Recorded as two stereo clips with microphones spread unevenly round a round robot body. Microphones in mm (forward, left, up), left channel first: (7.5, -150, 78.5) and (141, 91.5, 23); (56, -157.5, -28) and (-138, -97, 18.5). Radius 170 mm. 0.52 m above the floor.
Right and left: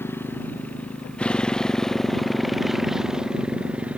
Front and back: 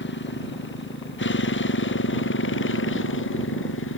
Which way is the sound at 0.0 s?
40° right.